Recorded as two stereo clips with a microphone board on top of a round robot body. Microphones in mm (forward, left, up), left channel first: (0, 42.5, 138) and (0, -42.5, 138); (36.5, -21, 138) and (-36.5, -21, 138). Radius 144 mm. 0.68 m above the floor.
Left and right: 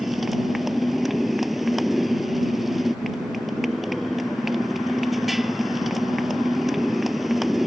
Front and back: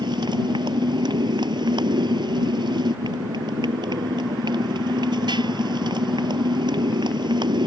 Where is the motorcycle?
Straight behind.